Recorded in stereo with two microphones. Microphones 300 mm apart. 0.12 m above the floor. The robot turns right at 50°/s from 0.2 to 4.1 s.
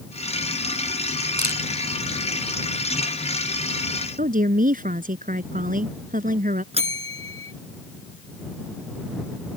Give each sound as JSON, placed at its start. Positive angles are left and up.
{"t": 1.4, "sound": "a camera shutter", "side_deg": -65}
{"t": 4.2, "sound": "a woman speaking", "side_deg": -25}
{"t": 6.7, "sound": "a bell", "side_deg": -20}